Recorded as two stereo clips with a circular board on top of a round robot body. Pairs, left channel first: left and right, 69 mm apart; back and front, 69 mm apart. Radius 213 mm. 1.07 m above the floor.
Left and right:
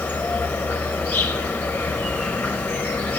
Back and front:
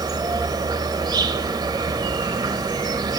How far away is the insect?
About 0.8 m.